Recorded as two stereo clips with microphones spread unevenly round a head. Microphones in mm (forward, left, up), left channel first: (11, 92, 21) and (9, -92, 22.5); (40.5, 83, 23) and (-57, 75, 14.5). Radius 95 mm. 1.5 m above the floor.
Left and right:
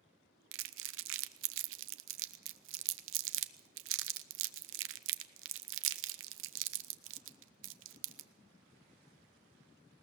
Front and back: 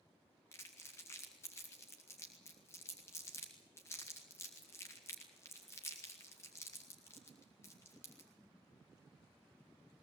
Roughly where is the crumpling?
Right.